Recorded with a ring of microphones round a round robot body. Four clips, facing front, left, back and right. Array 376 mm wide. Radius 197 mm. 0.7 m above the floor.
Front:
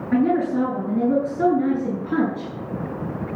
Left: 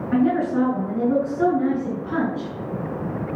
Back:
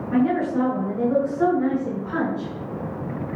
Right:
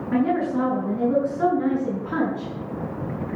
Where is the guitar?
I don't hear a guitar.